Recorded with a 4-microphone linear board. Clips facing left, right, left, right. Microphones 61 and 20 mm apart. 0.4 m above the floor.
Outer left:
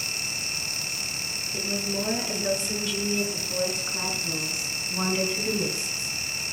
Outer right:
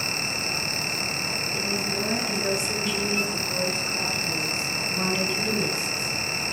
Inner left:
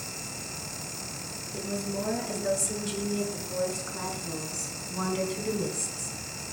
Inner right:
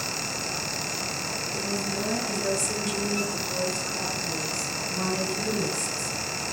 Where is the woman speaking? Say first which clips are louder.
Outer left 1 dB, even; 5° right (ahead or behind), 5.5 m; by 6.1 s 25° left (ahead or behind), 3 m.